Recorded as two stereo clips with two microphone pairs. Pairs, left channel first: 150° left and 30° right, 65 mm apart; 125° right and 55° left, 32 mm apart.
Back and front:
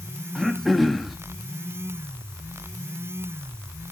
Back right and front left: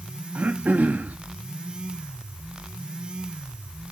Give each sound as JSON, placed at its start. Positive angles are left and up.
{"t": 0.3, "sound": "throat clearing", "azimuth_deg": 55, "distance_m": 0.7}